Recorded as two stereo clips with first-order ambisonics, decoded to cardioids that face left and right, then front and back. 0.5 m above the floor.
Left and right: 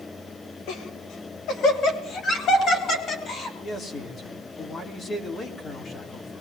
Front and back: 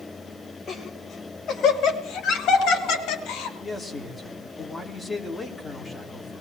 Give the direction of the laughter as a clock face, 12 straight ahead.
10 o'clock.